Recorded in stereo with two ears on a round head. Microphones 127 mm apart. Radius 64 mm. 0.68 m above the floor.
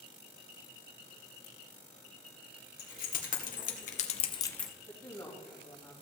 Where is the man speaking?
20° left (ahead or behind), 3.5 m.